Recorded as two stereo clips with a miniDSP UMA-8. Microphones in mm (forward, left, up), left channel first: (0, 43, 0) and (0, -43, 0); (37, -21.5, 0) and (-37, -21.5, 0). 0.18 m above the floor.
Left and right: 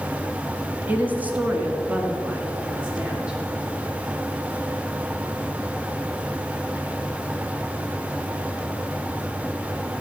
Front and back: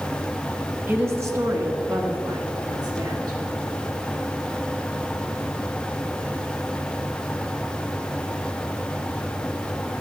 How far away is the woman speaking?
About 1.3 m.